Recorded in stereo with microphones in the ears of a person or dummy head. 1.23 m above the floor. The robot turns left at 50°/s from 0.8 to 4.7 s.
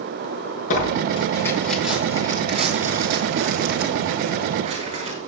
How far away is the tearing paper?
About 5 m.